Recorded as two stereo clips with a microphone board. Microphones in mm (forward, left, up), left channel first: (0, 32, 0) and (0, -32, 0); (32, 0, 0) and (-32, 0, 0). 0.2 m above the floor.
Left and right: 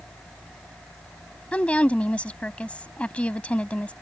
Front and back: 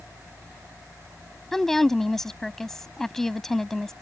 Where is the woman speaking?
70° left.